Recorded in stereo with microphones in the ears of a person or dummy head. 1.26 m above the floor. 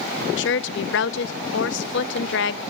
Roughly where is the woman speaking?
Left.